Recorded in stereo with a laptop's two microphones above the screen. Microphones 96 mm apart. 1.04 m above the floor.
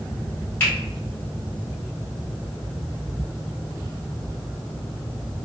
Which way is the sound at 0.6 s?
20° left (ahead or behind).